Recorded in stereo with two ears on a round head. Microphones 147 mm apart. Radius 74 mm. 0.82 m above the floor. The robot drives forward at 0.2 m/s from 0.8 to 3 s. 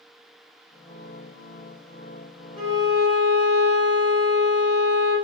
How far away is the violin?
About 1.8 m.